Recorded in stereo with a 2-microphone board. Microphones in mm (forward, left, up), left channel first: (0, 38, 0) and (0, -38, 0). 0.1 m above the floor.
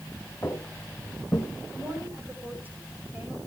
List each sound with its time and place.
0.4 s footsteps: 35° left (ahead or behind), 3 m; by 1.5 s 25° left (ahead or behind), 2 m
1.7 s a woman speaking: 20° right (ahead or behind), 7 m